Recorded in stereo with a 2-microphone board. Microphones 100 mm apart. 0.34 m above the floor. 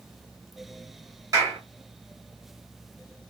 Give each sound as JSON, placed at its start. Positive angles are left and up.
{"t": 1.3, "sound": "a clap", "side_deg": -35, "distance_m": 1.4}